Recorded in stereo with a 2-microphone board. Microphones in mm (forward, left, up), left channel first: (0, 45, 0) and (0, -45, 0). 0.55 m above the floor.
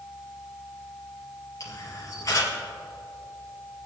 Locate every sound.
1.6 s a camera shutter: 45° left (ahead or behind), 4 m